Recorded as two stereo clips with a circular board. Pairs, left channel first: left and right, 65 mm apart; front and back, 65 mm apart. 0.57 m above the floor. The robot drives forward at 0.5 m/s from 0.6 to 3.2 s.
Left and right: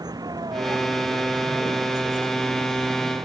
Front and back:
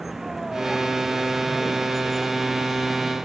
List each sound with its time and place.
0.0 s a vehicle: 95° right